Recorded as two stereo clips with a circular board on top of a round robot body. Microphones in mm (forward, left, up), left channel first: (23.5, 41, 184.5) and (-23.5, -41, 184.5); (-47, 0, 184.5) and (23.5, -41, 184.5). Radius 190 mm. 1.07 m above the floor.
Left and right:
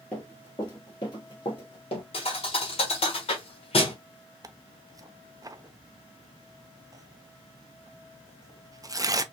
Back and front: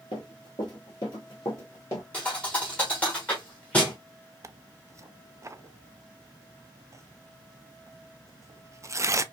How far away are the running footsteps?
About 1.2 m.